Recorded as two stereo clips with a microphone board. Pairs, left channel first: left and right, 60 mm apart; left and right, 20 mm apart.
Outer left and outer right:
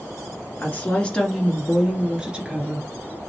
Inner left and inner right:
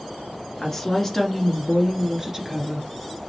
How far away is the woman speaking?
About 1.5 m.